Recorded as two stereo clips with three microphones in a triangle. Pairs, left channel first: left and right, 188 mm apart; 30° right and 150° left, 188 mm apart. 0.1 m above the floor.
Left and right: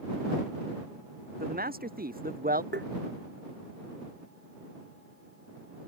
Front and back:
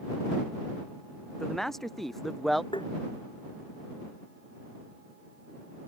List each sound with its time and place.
1.4 s a man speaking: 120° right
2.7 s tapping: 90° right